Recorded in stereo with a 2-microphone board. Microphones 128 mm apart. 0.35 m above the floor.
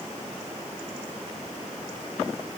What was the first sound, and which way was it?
Only background noise.